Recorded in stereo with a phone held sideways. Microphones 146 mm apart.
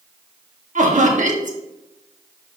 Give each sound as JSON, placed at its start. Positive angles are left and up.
{"t": 0.8, "sound": "laughter", "side_deg": -55, "distance_m": 1.8}